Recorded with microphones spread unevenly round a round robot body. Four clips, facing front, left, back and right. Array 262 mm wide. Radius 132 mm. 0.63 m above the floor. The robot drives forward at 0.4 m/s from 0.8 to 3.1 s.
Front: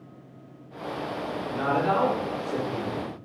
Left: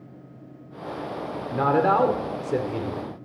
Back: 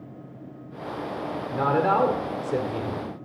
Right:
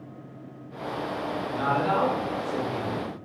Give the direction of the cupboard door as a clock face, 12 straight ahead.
I don't hear a cupboard door.